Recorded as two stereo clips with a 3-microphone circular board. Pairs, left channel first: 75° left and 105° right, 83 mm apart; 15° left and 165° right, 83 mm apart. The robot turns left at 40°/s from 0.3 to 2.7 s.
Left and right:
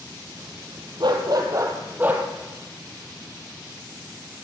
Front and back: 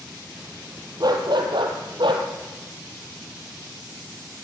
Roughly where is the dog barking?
Behind right.